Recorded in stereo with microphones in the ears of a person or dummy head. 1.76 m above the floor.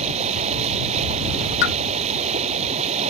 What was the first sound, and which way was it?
Running water, 35° right (ahead or behind).